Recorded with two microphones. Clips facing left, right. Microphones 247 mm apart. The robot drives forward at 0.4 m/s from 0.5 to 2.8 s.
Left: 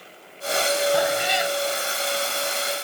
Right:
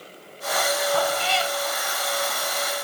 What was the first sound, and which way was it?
A cat meowing, 15° left (ahead or behind).